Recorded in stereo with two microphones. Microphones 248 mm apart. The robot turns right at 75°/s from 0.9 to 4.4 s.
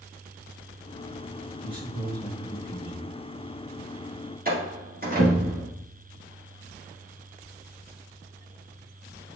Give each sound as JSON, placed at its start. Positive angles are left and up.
{"t": 1.6, "sound": "a man speaking", "azimuth_deg": -35, "distance_m": 2.5}
{"t": 4.5, "sound": "a door slam", "side_deg": -35, "distance_m": 2.0}